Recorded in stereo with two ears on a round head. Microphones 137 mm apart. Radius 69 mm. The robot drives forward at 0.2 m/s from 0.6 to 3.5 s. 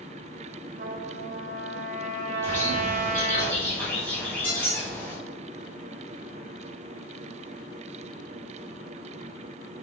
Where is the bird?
15° left (ahead or behind), 1.8 m.